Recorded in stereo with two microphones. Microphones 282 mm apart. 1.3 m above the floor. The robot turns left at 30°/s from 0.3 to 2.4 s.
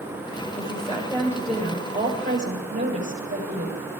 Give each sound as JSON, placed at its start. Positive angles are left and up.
{"t": 0.5, "sound": "a woman speaking", "azimuth_deg": 30, "distance_m": 6.0}